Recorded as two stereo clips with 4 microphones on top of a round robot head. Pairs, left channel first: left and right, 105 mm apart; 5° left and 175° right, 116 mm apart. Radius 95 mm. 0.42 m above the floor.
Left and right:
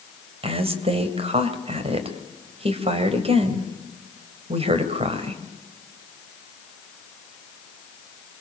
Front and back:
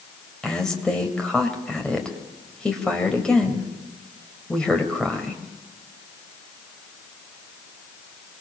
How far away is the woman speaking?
About 3 m.